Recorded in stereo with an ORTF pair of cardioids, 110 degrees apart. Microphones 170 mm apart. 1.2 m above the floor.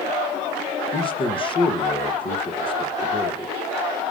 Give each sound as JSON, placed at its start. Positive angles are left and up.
{"t": 0.9, "sound": "a man speaking", "azimuth_deg": 30, "distance_m": 1.0}